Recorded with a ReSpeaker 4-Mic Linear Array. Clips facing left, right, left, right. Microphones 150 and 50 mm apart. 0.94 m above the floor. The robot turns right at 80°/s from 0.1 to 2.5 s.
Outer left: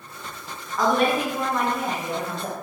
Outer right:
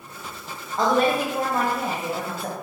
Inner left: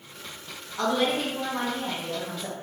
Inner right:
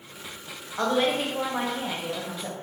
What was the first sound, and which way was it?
A woman speaking, 135° right.